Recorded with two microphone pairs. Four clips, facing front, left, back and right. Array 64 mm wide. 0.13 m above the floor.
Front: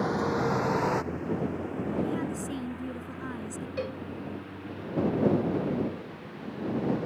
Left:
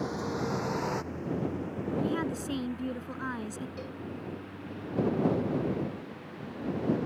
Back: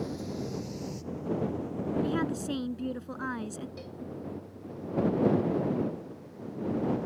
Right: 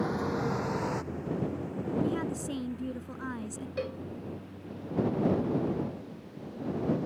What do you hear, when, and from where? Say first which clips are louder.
0.0 s a vehicle: right 2 dB, front 8 dB; 15° right; by 7.1 s 40° left
2.0 s a woman speaking: left 1 dB, back 1 dB; 145° left
3.8 s a cowbell: right 5 dB, front 9 dB; 40° right